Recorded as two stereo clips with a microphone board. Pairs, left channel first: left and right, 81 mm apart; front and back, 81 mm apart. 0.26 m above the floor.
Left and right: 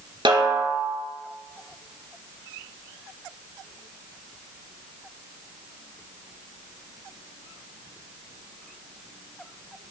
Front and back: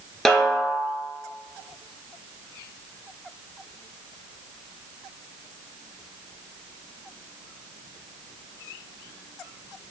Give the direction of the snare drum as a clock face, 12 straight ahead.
3 o'clock.